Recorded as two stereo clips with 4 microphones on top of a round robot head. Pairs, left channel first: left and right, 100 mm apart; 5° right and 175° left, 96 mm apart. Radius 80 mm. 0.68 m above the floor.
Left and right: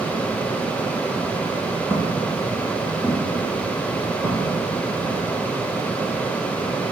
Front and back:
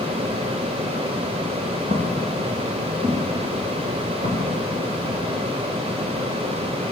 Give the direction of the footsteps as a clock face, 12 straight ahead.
7 o'clock.